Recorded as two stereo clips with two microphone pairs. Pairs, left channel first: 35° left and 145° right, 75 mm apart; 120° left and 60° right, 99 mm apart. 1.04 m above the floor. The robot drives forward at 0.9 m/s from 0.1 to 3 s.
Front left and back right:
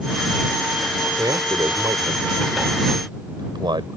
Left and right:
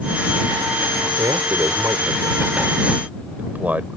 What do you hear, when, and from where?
1.2 s a man speaking: 110° right; by 4.0 s 135° right